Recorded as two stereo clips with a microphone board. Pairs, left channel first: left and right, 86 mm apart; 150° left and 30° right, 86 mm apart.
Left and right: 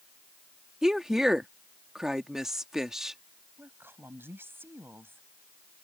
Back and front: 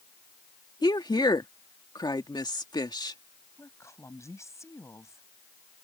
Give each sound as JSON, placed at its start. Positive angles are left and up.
{"t": 0.8, "sound": "a woman speaking", "azimuth_deg": -175}
{"t": 3.6, "sound": "a woman speaking", "azimuth_deg": -155}